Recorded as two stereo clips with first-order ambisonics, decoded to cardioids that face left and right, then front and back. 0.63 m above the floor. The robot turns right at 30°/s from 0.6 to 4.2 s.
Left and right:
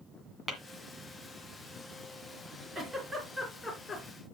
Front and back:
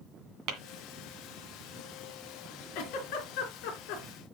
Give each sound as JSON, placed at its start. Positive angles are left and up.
{"t": 0.5, "sound": "tapping", "azimuth_deg": -170, "distance_m": 1.9}
{"t": 2.8, "sound": "a giggle", "azimuth_deg": -20, "distance_m": 3.0}